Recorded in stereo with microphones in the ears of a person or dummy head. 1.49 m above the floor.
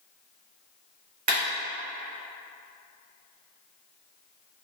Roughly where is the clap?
Right.